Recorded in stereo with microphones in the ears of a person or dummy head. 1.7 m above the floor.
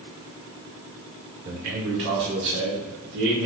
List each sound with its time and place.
1.4 s a man speaking: 35° right (ahead or behind), 0.9 m; by 3.5 s 65° right (ahead or behind), 1.8 m